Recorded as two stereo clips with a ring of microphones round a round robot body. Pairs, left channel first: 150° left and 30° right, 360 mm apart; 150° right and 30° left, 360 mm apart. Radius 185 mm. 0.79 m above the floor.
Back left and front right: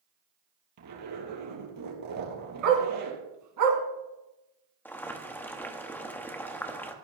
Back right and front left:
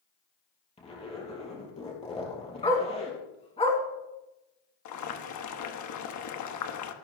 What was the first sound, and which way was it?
A zipper, 75° right.